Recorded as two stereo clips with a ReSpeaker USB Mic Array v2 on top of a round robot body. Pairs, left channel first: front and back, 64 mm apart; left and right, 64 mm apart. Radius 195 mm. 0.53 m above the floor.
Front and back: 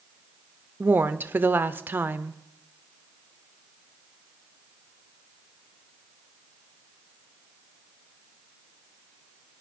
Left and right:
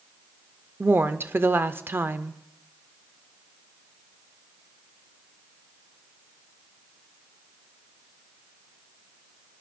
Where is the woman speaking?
135° right, 0.8 m.